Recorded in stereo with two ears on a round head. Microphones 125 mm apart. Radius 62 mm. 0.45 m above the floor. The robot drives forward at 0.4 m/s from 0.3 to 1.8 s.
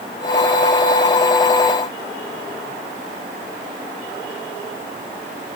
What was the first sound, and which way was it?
Only background noise.